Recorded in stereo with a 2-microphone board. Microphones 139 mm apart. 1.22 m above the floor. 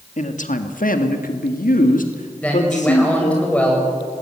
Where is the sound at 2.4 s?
10° left (ahead or behind), 7.5 m.